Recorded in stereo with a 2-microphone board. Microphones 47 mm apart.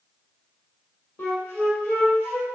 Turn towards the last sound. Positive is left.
turn(degrees=50)  # may be behind; listen again after turning